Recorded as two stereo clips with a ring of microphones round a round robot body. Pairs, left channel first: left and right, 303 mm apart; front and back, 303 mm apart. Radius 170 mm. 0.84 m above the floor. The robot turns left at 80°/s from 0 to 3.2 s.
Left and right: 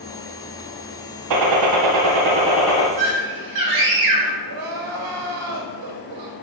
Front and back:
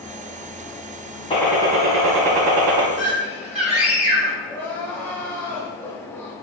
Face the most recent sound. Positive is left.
turn(degrees=-85)